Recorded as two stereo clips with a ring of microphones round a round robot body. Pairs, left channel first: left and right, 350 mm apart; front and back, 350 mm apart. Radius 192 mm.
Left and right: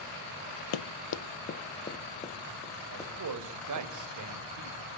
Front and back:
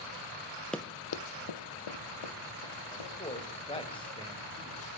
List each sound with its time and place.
0.7 s running footsteps: 90° left, 0.7 m; by 3.9 s 10° left, 5 m
2.9 s a man speaking: 75° right, 1.9 m